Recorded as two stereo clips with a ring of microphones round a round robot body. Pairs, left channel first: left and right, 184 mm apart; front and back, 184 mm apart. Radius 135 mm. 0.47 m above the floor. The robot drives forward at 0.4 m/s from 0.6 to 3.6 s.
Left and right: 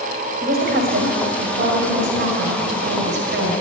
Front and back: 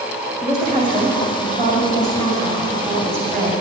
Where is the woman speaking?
60° right, 3 m; by 3.6 s 90° right, 2.5 m.